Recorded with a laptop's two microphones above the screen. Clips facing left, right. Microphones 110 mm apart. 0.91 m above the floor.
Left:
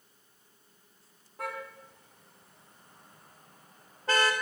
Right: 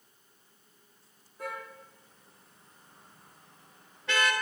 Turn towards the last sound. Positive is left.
turn(degrees=35)  # may be behind; listen again after turning